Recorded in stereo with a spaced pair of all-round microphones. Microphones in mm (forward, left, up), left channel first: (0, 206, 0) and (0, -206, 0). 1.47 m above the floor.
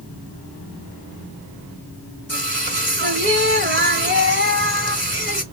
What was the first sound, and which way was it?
Singing, 25° right (ahead or behind).